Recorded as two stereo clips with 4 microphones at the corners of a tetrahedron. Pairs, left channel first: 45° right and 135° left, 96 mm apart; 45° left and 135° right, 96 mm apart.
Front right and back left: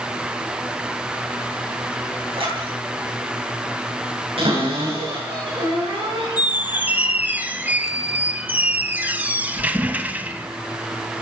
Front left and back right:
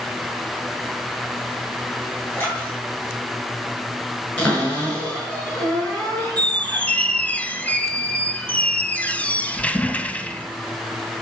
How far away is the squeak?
About 0.7 m.